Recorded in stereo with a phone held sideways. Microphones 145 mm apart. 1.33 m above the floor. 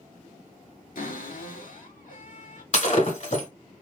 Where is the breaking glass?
55° left (ahead or behind), 2.5 m.